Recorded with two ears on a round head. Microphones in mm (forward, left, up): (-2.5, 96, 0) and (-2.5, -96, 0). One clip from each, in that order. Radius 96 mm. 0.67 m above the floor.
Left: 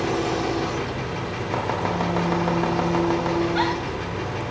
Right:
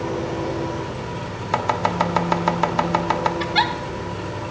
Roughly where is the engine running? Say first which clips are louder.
Left 2 dB; left.